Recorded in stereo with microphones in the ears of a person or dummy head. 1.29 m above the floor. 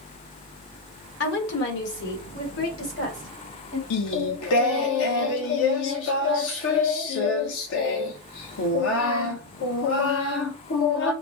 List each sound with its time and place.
1.2 s a woman speaking: 65° left (ahead or behind), 1.4 m; by 3.8 s 75° left (ahead or behind), 3.5 m
3.9 s singing: 85° left, 0.8 m